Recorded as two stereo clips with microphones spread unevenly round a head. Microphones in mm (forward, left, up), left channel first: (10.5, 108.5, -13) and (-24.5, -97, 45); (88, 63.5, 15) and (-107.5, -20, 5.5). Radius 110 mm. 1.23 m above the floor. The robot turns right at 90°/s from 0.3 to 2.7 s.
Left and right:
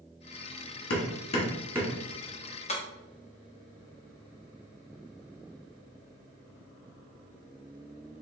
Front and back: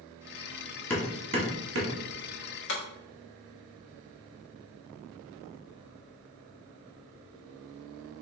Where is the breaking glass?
15° left, 0.8 m.